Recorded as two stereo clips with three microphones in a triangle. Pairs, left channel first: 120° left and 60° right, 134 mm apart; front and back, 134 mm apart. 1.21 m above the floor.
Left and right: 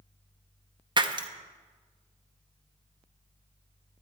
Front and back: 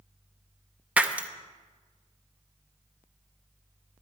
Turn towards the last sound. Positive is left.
turn(degrees=-105)